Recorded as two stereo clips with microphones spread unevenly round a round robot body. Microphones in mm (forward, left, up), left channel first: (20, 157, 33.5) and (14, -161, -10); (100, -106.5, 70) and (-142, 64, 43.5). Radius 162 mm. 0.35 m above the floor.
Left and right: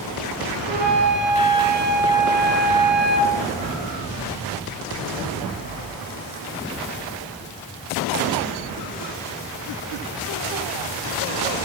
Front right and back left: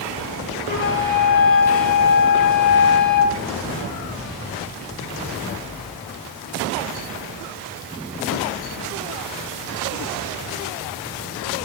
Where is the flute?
25° left, 5.5 m.